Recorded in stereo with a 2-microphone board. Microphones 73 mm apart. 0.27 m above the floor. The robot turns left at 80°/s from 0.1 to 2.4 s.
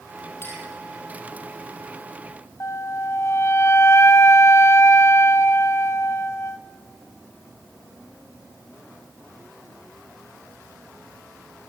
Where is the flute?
40° left (ahead or behind), 0.8 m.